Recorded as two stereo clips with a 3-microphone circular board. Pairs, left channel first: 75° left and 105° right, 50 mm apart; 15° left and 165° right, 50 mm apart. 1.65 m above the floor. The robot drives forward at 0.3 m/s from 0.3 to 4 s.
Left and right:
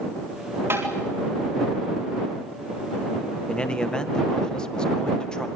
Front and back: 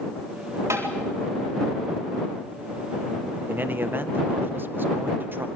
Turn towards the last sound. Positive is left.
turn(degrees=150)